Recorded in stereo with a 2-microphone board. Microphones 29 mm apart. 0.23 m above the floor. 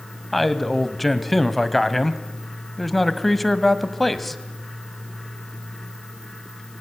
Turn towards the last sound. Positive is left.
turn(degrees=5)  # may be behind; listen again after turning